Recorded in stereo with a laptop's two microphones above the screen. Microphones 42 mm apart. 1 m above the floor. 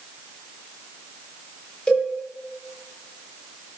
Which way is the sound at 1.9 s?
20° left (ahead or behind).